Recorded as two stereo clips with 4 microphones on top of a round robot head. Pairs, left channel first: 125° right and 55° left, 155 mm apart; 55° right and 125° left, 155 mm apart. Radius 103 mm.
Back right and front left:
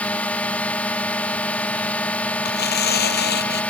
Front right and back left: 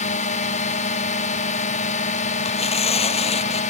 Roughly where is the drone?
Ahead right.